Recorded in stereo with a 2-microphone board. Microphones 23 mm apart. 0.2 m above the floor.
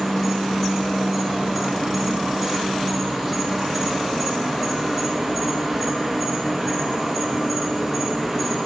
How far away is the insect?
About 3 m.